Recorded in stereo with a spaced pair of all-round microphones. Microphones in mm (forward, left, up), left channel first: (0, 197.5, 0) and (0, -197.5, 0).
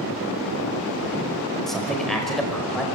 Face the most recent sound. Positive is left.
turn(degrees=0)  # may be behind; listen again after turning